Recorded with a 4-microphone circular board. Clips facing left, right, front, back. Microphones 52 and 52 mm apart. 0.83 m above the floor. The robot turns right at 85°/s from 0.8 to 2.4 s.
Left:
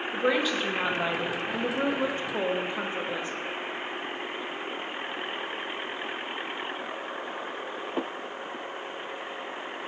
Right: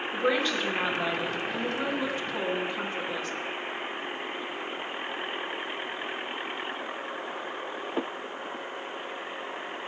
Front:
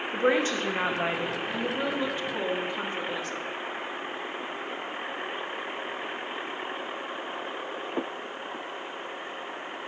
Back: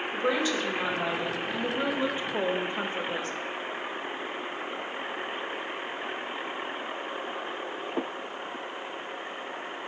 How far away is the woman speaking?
About 0.7 m.